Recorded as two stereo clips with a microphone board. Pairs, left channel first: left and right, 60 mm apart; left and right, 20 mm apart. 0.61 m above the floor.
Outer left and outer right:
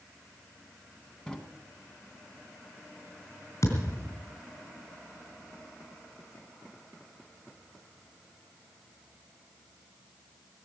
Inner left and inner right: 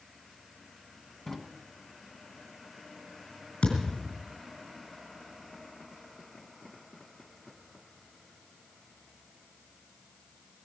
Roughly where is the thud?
Left.